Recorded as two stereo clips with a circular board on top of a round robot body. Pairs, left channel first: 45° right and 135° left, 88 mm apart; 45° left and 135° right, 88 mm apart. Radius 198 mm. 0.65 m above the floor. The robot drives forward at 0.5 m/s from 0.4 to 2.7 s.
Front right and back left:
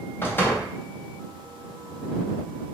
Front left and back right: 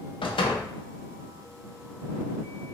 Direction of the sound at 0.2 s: 25° left.